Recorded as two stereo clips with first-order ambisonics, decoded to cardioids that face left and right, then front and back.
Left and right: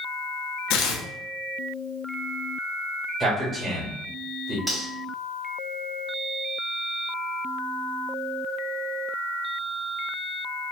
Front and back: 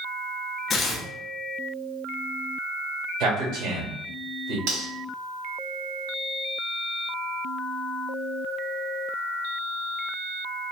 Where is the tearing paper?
65° left, 0.6 m.